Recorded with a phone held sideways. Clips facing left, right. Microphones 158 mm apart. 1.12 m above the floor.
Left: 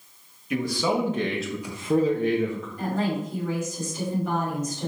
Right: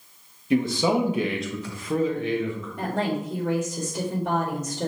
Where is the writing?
I don't hear writing.